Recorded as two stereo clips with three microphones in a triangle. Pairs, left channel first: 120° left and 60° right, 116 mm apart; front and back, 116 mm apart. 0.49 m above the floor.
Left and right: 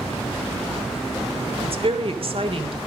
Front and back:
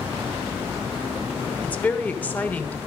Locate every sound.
1.6 s a woman speaking: 75° right, 1.2 m